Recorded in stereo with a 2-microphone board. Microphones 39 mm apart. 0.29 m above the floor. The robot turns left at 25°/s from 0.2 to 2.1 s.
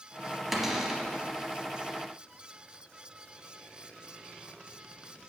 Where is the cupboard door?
5° right (ahead or behind), 1.1 m; by 1.0 s 15° right (ahead or behind), 1.1 m.